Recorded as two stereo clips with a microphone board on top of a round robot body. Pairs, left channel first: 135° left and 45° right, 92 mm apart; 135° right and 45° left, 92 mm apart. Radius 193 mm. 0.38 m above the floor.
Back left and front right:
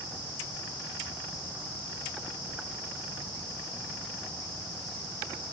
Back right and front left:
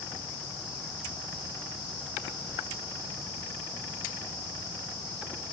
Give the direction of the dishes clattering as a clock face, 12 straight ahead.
No dishes clattering in this recording.